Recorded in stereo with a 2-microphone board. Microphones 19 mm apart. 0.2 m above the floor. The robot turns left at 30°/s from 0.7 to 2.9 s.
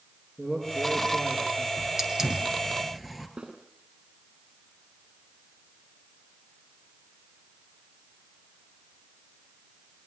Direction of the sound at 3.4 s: 70° right (ahead or behind).